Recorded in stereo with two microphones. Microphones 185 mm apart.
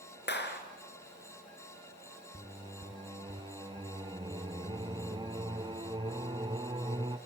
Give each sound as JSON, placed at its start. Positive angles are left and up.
{"t": 0.3, "sound": "a clap", "side_deg": 70, "distance_m": 2.5}
{"t": 2.3, "sound": "singing", "side_deg": -25, "distance_m": 0.8}